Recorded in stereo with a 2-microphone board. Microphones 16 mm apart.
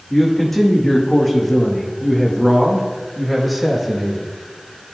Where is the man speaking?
10° left (ahead or behind), 6.5 m; by 4.3 s 10° right (ahead or behind), 5 m.